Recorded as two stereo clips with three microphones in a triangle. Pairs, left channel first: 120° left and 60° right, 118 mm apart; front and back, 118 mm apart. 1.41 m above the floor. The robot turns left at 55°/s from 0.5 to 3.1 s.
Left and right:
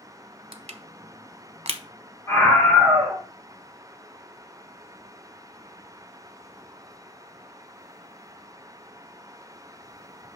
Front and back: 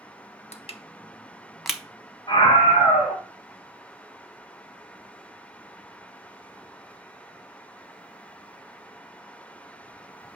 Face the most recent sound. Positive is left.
turn(degrees=5)